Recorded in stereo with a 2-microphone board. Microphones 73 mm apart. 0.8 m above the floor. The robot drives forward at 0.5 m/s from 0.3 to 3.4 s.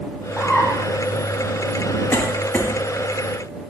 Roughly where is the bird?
Centre.